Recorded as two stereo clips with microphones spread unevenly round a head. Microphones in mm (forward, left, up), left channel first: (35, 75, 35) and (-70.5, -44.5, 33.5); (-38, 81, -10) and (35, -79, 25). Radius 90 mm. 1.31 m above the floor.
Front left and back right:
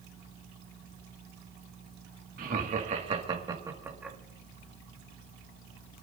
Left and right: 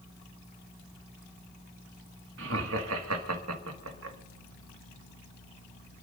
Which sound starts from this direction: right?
Laughter, at 2.4 s.